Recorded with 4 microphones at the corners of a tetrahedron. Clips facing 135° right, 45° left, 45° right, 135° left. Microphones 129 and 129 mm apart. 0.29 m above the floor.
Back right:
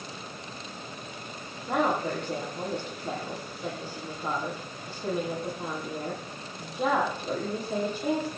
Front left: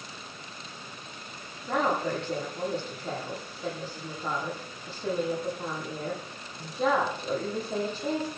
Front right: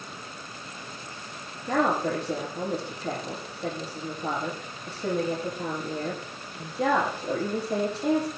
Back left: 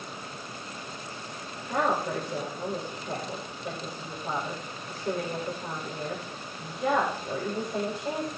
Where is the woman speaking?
50° right, 9.5 m.